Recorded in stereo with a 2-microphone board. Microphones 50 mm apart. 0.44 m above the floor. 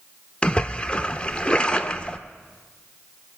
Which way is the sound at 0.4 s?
20° left (ahead or behind).